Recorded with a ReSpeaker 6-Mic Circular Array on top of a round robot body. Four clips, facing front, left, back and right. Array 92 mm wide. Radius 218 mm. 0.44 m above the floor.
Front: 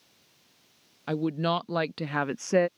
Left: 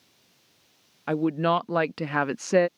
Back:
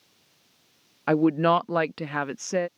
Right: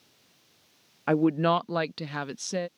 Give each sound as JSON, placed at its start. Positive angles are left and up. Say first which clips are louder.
{"t": 1.1, "sound": "a woman speaking", "louder": "right 1 dB, back 7 dB", "azimuth_deg": -165}